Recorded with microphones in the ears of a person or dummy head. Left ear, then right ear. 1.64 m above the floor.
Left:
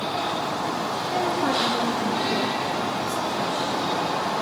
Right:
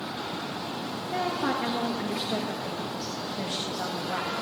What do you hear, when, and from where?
1.1 s a woman speaking: 5° right (ahead or behind), 2 m; by 4.3 s 55° right (ahead or behind), 2.5 m